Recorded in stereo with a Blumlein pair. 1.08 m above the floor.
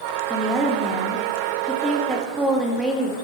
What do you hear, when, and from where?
0.3 s a woman speaking: 10° right, 1.6 m